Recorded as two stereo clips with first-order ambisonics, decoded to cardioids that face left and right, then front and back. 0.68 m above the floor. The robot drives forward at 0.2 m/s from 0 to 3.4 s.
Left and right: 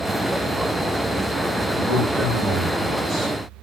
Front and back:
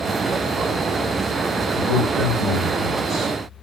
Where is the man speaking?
120° right, 2 m; by 3.3 s 130° right, 2.5 m.